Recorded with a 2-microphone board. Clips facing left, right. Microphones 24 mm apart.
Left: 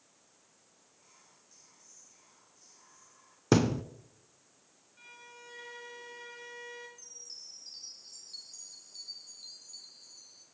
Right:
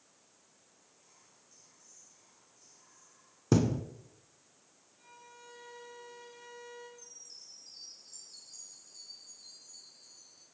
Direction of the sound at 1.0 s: 25° left (ahead or behind).